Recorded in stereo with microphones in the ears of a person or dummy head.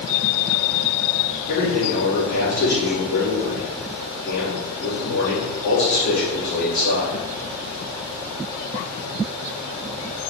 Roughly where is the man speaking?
Left.